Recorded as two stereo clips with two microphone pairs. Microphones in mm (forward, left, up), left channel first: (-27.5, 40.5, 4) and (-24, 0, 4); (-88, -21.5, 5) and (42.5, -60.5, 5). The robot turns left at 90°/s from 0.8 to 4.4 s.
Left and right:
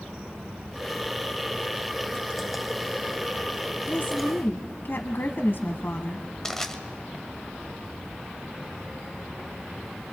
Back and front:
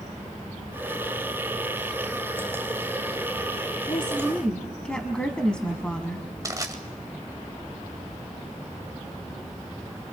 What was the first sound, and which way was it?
A woman speaking, 130° left.